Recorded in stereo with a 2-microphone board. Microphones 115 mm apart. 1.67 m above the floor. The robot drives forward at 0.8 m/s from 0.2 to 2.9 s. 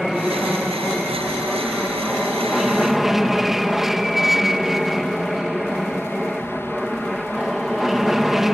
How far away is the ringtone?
No ringtone in this recording.